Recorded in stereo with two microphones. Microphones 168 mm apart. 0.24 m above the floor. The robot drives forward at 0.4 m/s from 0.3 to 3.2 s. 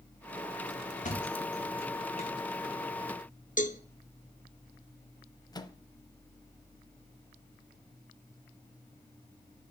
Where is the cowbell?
50° left (ahead or behind), 0.6 m.